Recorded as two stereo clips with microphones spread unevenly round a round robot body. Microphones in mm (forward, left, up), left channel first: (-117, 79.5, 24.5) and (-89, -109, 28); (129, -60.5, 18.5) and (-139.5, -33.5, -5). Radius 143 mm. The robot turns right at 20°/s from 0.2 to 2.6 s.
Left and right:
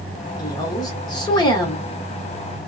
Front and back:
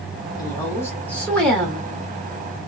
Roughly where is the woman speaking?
Left.